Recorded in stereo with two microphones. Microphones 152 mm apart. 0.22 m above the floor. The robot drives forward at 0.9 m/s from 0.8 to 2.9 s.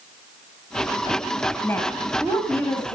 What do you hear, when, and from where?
1.6 s a woman speaking: 15° left (ahead or behind), 1.2 m